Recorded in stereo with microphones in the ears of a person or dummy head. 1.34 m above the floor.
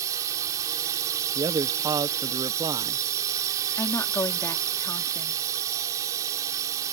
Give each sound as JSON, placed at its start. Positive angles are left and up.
{"t": 0.0, "sound": "a drone", "side_deg": -20}
{"t": 1.4, "sound": "a man speaking", "side_deg": -15}
{"t": 3.8, "sound": "a woman speaking", "side_deg": 15}